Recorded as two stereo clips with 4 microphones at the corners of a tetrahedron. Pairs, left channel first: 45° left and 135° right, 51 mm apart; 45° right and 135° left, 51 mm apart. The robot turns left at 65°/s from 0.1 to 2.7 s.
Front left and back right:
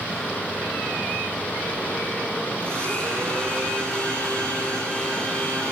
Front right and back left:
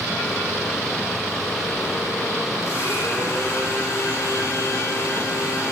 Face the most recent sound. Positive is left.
turn(degrees=-20)